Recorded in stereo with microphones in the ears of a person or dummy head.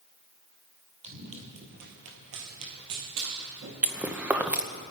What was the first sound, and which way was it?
Running footsteps, 35° right (ahead or behind).